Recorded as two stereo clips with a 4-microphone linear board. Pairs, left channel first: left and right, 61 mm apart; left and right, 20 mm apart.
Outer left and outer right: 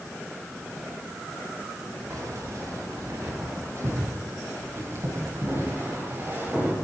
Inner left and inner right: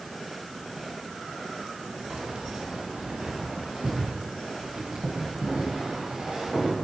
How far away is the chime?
I don't hear a chime.